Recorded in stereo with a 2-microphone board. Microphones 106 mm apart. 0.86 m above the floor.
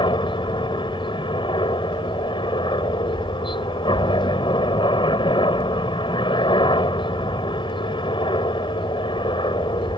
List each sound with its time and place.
0.0 s a helicopter: 50° left (ahead or behind)